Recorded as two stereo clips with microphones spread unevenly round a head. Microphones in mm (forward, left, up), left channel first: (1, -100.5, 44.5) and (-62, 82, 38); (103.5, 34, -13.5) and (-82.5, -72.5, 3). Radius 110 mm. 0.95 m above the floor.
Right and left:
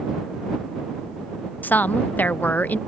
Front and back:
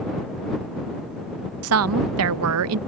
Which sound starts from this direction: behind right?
A woman speaking, at 1.6 s.